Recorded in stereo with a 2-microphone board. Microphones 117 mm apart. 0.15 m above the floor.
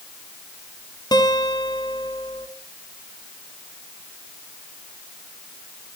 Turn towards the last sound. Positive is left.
turn(degrees=35)  # may be behind; listen again after turning